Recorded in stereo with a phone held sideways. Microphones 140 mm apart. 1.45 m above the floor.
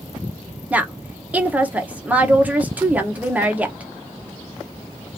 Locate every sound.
0.7 s a woman speaking: 10° right (ahead or behind), 0.9 m